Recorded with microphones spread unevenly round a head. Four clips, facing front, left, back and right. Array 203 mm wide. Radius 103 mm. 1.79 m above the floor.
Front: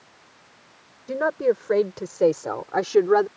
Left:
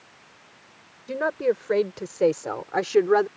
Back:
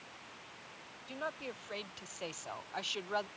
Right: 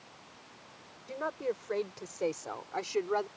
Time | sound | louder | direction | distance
1.1 | a woman speaking | left 11 dB, front 20 dB | 30° left | ?